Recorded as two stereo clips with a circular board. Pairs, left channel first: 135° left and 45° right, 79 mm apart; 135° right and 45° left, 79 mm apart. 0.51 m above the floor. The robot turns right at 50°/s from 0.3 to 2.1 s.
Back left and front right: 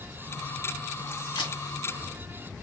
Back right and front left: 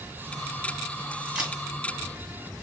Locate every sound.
1.4 s a camera shutter: 125° left, 2.5 m; by 1.6 s 135° left, 2.5 m